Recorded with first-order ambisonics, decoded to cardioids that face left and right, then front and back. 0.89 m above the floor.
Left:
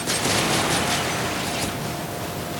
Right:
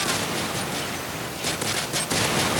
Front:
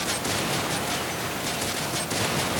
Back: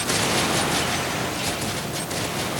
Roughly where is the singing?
No singing in this recording.